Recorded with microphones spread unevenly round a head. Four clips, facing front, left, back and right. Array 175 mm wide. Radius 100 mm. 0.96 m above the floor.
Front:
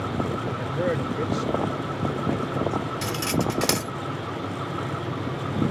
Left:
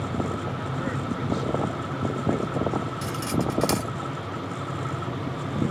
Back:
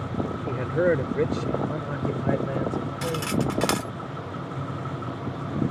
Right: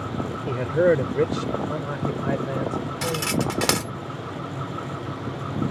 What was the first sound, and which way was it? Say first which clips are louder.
A man speaking: right 10 dB, back 8 dB; 110° right.